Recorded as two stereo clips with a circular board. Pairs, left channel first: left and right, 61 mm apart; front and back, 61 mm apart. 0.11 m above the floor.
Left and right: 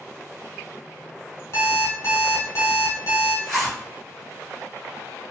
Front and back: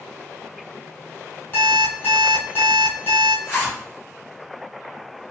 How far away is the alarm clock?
About 1.3 m.